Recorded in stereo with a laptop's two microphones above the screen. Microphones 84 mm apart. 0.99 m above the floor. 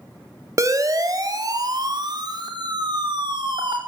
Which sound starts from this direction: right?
A siren, at 0.6 s.